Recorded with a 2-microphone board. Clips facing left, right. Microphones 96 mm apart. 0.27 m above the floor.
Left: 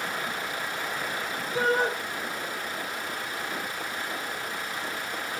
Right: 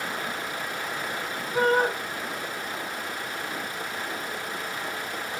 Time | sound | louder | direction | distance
1.5 | a shout | right 3 dB | 50° right (ahead or behind) | 3 m